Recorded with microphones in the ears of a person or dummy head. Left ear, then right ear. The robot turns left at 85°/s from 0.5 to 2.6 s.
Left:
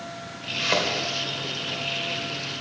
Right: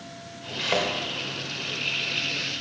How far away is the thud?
About 2 m.